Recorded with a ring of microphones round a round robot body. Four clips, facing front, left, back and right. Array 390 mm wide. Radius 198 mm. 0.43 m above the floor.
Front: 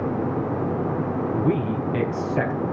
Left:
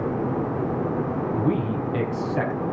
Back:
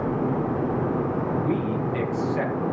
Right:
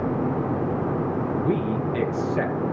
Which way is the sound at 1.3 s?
55° left.